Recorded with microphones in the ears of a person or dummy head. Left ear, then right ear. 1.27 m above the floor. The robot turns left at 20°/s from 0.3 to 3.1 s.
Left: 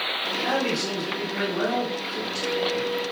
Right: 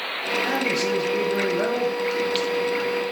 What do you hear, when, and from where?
0.4 s a man speaking: 175° left, 1.5 m; by 2.9 s 125° left, 1.5 m